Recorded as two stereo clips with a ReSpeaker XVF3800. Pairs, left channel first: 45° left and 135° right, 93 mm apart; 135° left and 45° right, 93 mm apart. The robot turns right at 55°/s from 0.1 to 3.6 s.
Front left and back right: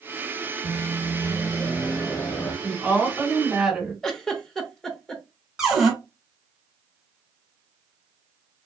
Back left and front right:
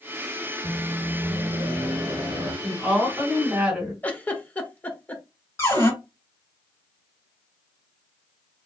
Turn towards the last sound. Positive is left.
turn(degrees=145)